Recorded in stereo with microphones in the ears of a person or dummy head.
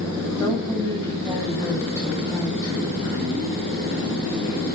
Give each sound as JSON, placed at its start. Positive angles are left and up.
{"t": 0.4, "sound": "a woman speaking", "side_deg": 20, "distance_m": 9.0}